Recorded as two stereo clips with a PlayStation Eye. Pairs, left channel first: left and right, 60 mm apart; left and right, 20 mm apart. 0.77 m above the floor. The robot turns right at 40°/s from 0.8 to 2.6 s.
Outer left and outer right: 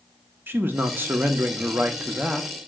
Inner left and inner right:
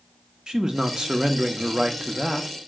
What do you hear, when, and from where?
0.5 s a man speaking: 90° right, 0.6 m; by 2.5 s 25° right, 0.6 m